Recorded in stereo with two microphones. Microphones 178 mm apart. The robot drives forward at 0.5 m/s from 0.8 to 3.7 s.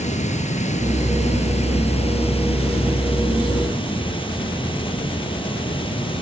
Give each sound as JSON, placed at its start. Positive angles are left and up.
{"t": 0.0, "sound": "running water", "side_deg": 40, "distance_m": 3.5}